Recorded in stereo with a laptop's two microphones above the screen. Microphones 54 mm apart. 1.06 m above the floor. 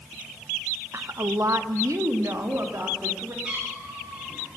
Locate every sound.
0.9 s a woman speaking: 55° right (ahead or behind), 0.7 m; by 3.3 s 65° right (ahead or behind), 2.5 m
3.4 s a cat meowing: 20° right (ahead or behind), 10 m